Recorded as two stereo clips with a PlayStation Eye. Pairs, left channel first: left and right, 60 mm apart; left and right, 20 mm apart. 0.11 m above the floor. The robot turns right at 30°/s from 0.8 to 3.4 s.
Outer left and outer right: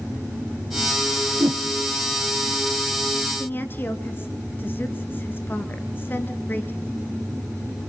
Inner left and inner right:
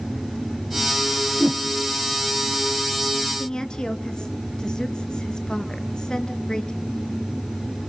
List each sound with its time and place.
1.4 s a whoosh: 75° right (ahead or behind), 1.5 m
3.4 s a woman speaking: 35° left (ahead or behind), 1.3 m